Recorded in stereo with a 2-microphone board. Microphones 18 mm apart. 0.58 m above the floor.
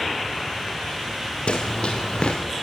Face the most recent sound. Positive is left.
turn(degrees=70)  # may be behind; listen again after turning